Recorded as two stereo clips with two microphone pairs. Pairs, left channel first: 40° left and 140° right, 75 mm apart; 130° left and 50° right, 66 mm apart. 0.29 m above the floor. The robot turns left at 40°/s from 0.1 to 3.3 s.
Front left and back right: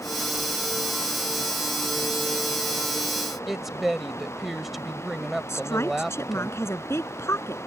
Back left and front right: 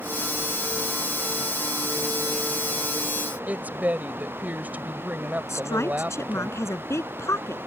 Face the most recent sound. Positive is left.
turn(degrees=90)